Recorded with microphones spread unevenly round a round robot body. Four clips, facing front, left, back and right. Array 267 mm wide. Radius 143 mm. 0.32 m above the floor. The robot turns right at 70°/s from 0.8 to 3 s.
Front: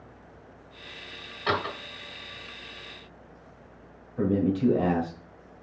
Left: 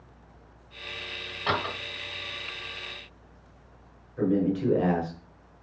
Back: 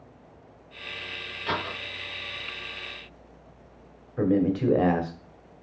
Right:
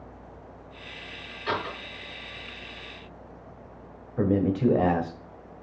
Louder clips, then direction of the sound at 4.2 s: Right 1 dB, back 1 dB; 125° right.